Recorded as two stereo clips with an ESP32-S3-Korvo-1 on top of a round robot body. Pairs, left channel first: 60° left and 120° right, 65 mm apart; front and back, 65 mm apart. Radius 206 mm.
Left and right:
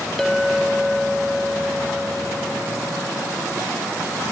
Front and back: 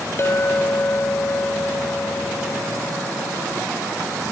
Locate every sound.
0.2 s a clink: 20° right, 0.6 m